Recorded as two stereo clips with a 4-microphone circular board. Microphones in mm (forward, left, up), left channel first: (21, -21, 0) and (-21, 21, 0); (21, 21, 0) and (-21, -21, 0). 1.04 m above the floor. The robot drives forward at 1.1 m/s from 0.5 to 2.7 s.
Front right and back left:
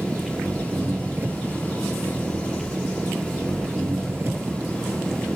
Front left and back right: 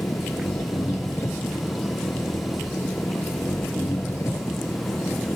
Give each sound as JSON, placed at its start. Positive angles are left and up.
{"t": 0.0, "sound": "an engine running", "azimuth_deg": 80}